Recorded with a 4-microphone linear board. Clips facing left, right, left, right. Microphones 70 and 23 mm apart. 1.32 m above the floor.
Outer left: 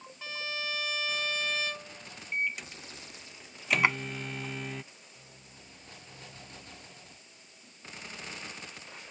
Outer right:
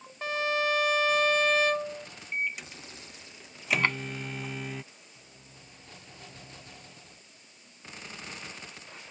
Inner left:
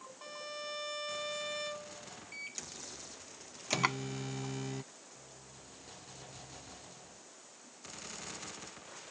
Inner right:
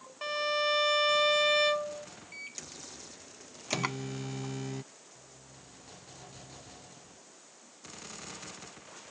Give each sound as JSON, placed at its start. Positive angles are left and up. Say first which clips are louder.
{"t": 0.2, "sound": "a violin", "louder": "outer right 10 dB, inner right 14 dB", "side_deg": -55}
{"t": 2.3, "sound": "a microwave", "louder": "even, even", "side_deg": 0}
{"t": 3.8, "sound": "a drawer", "louder": "outer left 2 dB, inner left 4 dB", "side_deg": 15}